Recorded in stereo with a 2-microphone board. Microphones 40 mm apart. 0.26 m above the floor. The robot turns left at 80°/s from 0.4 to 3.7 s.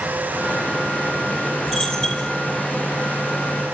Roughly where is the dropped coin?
Centre.